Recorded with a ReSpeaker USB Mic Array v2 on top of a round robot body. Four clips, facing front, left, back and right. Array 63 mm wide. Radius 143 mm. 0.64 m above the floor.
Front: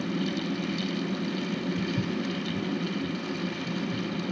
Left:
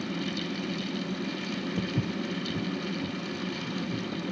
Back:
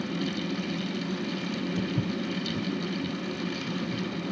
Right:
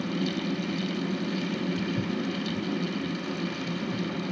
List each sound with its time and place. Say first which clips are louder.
1.8 s footsteps: right 2 dB, even; 100° left, 2 m; by 4.3 s 15° left, 0.9 m